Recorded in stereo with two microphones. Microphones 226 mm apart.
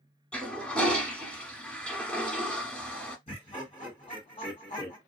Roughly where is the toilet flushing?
Centre.